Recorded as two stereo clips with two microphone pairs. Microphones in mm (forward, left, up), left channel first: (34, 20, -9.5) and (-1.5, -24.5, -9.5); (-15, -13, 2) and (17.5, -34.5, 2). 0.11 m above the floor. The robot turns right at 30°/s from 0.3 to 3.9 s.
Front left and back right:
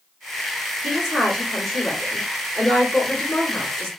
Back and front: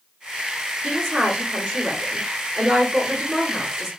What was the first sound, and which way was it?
A woman speaking, 75° right.